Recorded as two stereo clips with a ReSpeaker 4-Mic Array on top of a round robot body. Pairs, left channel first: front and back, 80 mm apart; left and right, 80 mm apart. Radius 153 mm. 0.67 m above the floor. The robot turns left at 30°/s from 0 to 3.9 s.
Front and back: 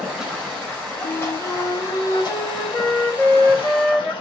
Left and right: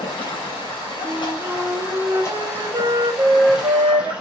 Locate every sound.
0.0 s running water: 100° left, 3 m; by 4.2 s 15° right, 3 m
1.0 s a flute: 5° right, 1.7 m; by 4.1 s 90° right, 1.7 m